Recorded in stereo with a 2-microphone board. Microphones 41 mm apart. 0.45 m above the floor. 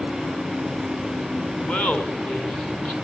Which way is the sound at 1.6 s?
45° left (ahead or behind).